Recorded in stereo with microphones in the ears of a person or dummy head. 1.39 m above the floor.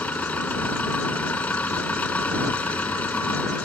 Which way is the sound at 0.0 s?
5° left (ahead or behind).